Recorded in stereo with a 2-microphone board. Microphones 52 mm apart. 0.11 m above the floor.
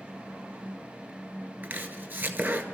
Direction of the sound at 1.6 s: 35° right (ahead or behind).